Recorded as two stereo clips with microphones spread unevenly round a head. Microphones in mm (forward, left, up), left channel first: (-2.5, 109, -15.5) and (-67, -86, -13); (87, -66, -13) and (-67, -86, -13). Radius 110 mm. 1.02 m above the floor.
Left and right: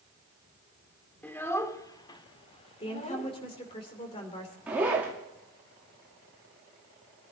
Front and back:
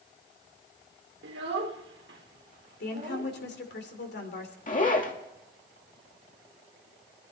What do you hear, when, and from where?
1.2 s a child speaking: 155° left, 2 m; by 3.3 s 125° left, 2 m
2.8 s a woman speaking: 5° left, 2.5 m
4.7 s a zipper: 25° right, 2 m